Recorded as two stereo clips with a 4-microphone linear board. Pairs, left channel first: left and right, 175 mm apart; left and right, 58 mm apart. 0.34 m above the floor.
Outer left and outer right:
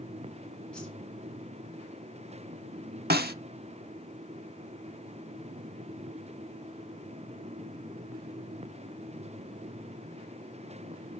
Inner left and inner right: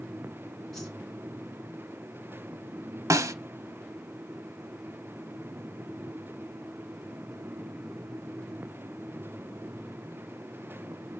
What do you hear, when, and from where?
0.7 s a whoosh: 5° left (ahead or behind), 3 m
3.1 s a snare drum: 65° right (ahead or behind), 0.6 m